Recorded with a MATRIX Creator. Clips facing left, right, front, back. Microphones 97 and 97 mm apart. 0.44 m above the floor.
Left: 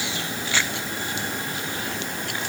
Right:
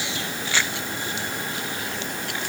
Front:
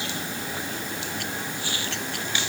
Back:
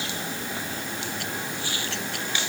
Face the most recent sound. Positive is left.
No sound to turn to.